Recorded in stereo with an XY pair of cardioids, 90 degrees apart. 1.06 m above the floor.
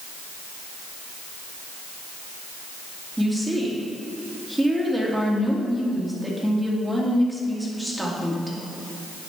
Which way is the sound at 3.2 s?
15° right.